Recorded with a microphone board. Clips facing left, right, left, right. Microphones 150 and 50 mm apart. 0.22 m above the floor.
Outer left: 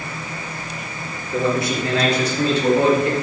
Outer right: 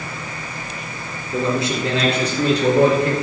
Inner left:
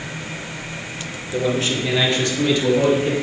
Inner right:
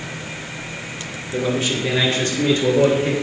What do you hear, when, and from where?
1.3 s a man speaking: 20° right (ahead or behind), 4 m; by 3.1 s 40° right (ahead or behind), 5 m